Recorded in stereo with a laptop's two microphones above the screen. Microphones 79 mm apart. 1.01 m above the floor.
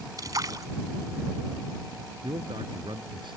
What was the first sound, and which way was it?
A splash, 50° right (ahead or behind).